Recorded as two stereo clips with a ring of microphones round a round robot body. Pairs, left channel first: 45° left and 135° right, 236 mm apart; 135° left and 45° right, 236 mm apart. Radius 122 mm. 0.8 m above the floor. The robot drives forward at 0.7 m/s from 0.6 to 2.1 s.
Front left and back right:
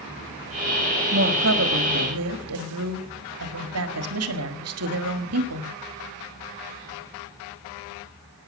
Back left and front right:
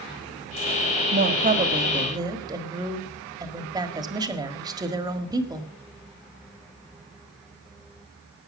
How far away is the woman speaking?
About 1.5 m.